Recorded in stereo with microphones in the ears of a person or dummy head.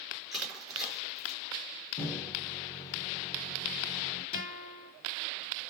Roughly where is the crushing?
Centre.